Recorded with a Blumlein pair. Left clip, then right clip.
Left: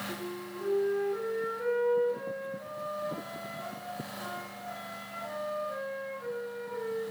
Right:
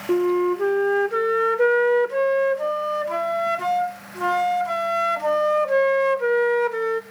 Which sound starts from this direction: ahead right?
A flute, at 0.1 s.